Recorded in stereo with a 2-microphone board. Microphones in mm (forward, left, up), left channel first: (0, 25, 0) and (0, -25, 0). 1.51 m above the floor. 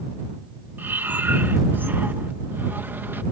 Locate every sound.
0.8 s breathing: 50° right (ahead or behind)